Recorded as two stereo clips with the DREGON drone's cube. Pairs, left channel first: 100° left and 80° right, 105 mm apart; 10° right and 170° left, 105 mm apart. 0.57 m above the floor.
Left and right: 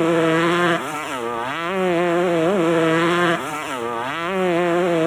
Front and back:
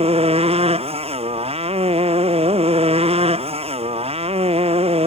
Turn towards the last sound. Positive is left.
turn(degrees=-170)